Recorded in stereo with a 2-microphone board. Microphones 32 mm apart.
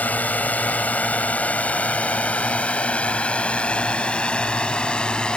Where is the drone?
60° left (ahead or behind); by 5.4 s 30° left (ahead or behind).